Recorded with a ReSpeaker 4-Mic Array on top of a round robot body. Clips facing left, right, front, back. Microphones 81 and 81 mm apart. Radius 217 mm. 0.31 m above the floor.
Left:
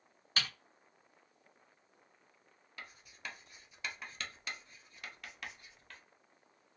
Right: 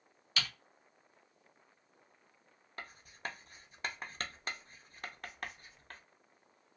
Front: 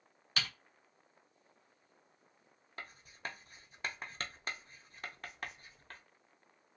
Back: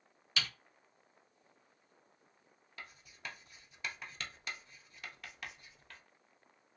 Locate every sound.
0.4 s typing on a keyboard: 40° left, 1.5 m
2.8 s writing: 45° right, 0.7 m